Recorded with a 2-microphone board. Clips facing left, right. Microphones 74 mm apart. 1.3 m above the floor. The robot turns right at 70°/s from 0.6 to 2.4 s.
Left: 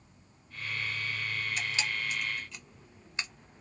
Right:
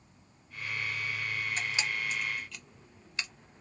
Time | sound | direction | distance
1.6 | a camera shutter | 35° right (ahead or behind) | 0.8 m